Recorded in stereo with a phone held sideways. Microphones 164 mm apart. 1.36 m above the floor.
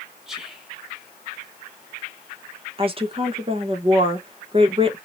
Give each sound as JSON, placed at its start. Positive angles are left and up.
{"t": 0.3, "sound": "whispering", "side_deg": 0, "distance_m": 1.2}
{"t": 2.8, "sound": "a woman speaking", "side_deg": -35, "distance_m": 1.1}